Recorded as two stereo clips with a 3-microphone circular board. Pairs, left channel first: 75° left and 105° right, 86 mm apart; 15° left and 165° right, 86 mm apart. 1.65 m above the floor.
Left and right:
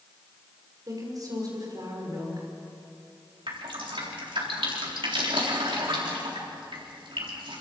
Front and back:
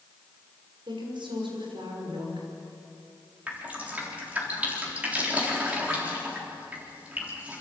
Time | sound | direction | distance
0.9 | a woman speaking | 150° right | 5.5 m
3.5 | dripping | 95° right | 4 m